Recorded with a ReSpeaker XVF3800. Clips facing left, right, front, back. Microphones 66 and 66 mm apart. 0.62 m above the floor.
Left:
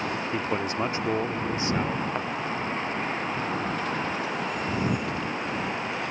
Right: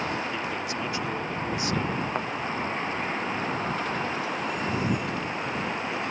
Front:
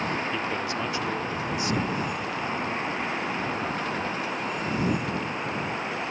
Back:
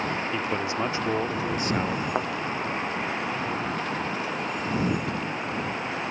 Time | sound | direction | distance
0.3 | a man speaking | 105° left | ?
2.1 | a thud | 170° right | ?